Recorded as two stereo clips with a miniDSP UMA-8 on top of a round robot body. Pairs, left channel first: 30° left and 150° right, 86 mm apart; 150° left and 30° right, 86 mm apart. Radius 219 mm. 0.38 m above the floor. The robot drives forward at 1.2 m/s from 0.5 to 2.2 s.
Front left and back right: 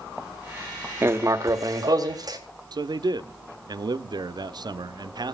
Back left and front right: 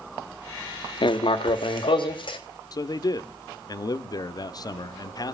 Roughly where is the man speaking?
Behind.